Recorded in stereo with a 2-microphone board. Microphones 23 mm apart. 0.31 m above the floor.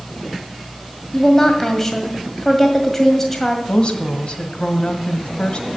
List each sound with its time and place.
1.1 s a woman speaking: 10° left (ahead or behind), 1.7 m
3.7 s a woman speaking: 45° left (ahead or behind), 1.4 m